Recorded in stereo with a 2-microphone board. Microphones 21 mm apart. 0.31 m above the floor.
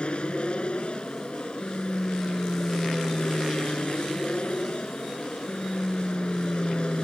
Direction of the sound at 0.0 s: 50° left (ahead or behind).